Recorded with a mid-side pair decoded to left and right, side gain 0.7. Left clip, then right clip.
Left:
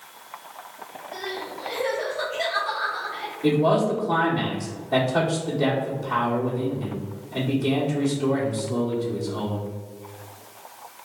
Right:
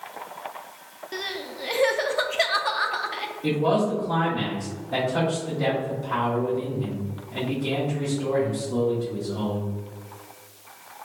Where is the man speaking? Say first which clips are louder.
Left 3 dB; 20° left, 1.7 m.